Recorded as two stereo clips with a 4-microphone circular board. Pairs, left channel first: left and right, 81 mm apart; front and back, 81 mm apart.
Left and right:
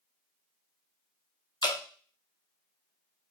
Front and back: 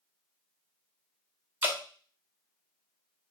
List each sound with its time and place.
1.6 s dripping: 115° left, 0.6 m